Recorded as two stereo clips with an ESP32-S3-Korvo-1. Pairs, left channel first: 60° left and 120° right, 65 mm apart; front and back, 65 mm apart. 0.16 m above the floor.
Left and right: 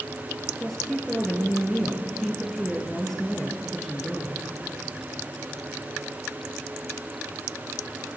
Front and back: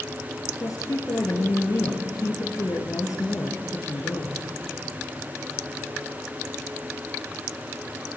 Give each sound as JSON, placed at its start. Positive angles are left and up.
{"t": 0.6, "sound": "a woman speaking", "azimuth_deg": -25, "distance_m": 2.5}